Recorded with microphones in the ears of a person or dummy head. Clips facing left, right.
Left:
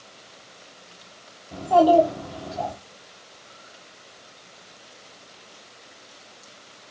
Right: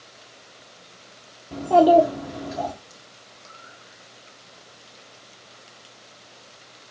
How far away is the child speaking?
About 0.6 m.